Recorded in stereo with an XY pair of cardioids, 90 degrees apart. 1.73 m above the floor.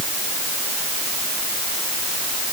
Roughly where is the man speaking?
I don't hear a man speaking.